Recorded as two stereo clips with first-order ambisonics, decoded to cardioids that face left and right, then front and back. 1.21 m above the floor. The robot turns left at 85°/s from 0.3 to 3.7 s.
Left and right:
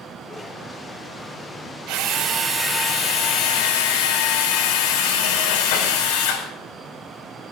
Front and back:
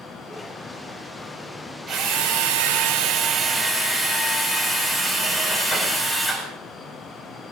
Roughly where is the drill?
Behind right.